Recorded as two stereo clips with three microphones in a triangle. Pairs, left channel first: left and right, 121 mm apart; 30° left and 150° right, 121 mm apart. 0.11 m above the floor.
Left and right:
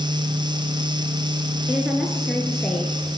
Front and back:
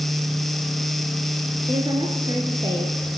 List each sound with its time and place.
1.7 s a woman speaking: 165° right, 1.6 m; by 3.1 s 165° left, 2 m